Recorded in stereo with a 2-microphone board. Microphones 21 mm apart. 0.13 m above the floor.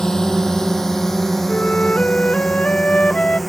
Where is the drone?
30° left (ahead or behind); by 3.5 s 5° left (ahead or behind).